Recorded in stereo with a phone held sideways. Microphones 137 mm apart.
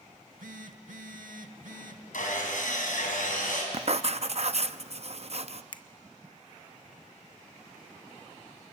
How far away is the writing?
About 0.6 m.